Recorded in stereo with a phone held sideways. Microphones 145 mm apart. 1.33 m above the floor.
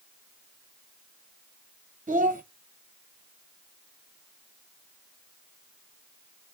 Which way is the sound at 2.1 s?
60° right (ahead or behind).